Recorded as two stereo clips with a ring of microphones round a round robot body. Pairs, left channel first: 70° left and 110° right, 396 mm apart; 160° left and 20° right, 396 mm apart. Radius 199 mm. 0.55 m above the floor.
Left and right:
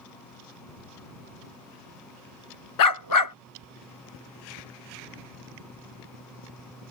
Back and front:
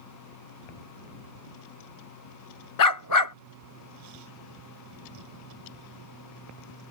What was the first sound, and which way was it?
A dog barking, 110° left.